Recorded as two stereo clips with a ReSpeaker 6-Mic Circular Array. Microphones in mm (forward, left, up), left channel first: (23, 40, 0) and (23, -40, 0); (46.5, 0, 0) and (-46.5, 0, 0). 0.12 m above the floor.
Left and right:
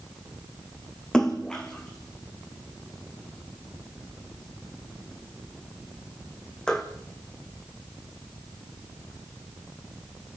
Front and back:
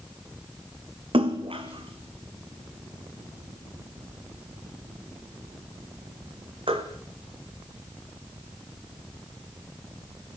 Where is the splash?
170° left, 2.5 m.